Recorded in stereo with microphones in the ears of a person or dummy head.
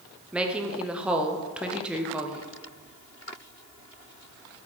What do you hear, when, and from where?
0.3 s a woman speaking: 5° right (ahead or behind), 0.6 m